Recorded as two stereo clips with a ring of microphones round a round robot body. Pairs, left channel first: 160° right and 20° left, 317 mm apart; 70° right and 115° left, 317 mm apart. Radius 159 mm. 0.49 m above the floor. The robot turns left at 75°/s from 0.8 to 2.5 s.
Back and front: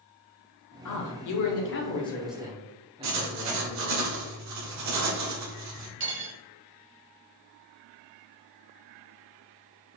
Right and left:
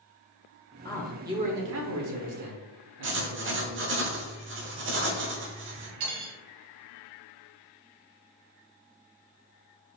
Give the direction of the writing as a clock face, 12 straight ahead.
10 o'clock.